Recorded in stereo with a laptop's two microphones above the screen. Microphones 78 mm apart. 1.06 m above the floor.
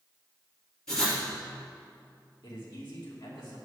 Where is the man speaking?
75° left (ahead or behind), 2.0 m.